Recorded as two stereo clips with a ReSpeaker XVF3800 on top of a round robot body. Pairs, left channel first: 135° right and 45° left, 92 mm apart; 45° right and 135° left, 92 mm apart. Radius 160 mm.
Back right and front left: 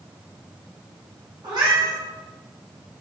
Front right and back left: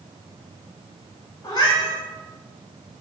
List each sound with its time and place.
1.4 s a cat meowing: straight ahead, 2 m